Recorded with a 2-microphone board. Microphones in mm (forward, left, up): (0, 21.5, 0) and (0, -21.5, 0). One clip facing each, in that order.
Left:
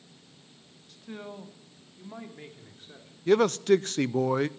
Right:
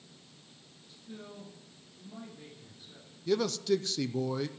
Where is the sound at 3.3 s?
50° left (ahead or behind), 0.5 m.